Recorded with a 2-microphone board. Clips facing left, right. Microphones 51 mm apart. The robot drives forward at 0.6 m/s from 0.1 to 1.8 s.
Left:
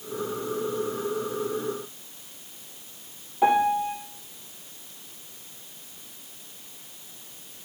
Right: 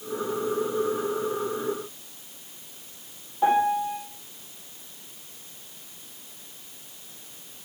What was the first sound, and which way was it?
A piano, 60° left (ahead or behind).